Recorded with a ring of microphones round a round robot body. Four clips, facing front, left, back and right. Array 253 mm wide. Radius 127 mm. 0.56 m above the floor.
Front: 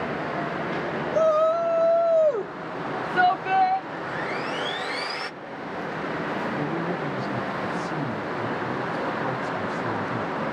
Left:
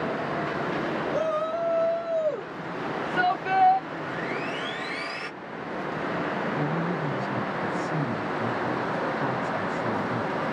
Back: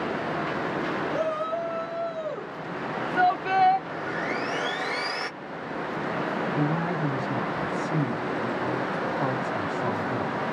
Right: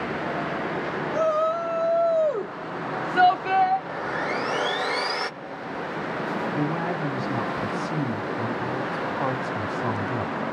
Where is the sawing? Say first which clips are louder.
Right 3 dB, even; 95° right, 0.7 m.